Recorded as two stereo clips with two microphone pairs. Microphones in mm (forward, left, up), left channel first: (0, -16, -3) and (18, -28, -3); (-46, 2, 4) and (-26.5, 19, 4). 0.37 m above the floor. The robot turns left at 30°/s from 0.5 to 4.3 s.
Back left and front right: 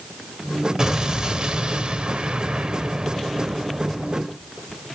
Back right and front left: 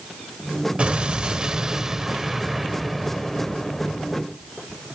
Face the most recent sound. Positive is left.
turn(degrees=-95)